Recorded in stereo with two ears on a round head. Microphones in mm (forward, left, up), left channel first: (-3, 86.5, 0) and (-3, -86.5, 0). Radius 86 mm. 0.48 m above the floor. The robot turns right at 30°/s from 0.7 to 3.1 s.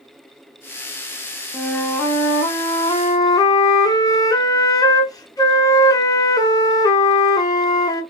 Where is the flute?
5° left (ahead or behind), 0.6 m; by 8.0 s 20° left (ahead or behind), 0.6 m.